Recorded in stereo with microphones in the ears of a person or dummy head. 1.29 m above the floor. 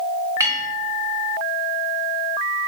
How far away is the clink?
About 1.2 m.